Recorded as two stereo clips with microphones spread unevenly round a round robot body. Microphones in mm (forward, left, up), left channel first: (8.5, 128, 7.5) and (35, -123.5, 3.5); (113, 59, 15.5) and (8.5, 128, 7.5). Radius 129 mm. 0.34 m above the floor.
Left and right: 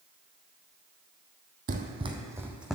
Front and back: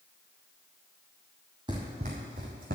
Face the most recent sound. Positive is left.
turn(degrees=-175)